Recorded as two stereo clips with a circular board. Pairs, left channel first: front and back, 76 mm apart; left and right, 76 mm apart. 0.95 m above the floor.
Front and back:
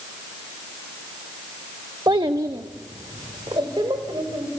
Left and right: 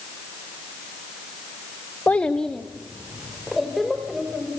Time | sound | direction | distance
2.1 | a child speaking | 155° left | 0.6 m